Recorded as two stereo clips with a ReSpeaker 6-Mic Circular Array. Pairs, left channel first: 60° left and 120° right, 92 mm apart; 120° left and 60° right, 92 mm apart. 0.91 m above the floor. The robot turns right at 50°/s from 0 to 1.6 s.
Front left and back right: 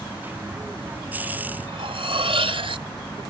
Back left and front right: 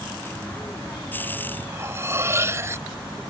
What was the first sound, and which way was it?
Cutlery clinking, 120° right.